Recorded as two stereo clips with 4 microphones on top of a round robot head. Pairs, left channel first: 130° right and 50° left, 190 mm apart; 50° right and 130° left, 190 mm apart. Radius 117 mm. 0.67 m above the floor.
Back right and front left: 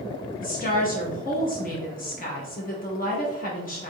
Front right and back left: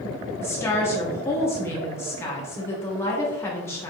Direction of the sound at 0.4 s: 120° right.